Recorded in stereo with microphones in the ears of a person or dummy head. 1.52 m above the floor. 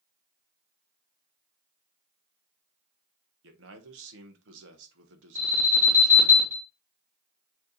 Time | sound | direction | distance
3.4 | a man speaking | 85° right | 1.3 m
5.3 | an alarm | 15° right (ahead or behind) | 3 m